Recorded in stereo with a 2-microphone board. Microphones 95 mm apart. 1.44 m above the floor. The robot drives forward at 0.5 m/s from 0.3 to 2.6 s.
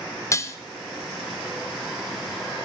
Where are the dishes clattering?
30° left (ahead or behind), 0.6 m; by 0.6 s 25° left (ahead or behind), 0.7 m.